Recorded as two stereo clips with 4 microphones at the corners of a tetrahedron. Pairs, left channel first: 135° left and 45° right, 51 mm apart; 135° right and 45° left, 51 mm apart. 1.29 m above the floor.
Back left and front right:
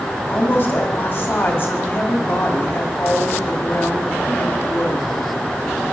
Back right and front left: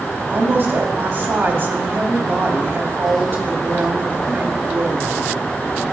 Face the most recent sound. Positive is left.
turn(degrees=85)